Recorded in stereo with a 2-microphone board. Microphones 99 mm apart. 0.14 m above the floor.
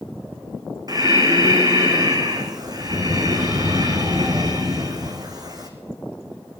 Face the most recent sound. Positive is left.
turn(degrees=-40)  # may be behind; listen again after turning